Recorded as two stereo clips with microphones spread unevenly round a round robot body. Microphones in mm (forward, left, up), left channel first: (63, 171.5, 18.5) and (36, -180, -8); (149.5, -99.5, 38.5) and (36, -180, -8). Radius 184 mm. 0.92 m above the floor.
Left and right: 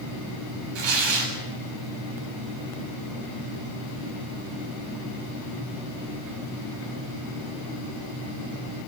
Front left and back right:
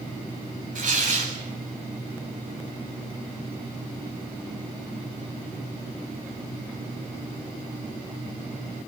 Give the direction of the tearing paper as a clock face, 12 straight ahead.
4 o'clock.